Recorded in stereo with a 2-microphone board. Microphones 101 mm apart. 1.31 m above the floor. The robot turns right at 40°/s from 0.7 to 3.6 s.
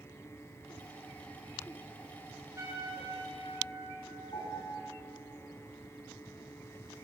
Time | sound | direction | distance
2.6 | a trumpet | 150° right | 4.5 m
4.3 | a piano | 55° left (ahead or behind) | 4.5 m